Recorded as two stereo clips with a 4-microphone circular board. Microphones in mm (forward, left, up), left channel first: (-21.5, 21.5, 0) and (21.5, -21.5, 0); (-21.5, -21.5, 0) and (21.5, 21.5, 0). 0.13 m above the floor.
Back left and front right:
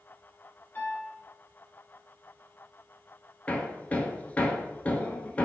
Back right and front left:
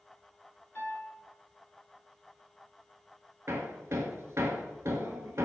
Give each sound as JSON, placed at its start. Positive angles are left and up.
{"t": 0.8, "sound": "a piano", "azimuth_deg": 170, "distance_m": 1.8}
{"t": 3.5, "sound": "hammering", "azimuth_deg": 75, "distance_m": 0.6}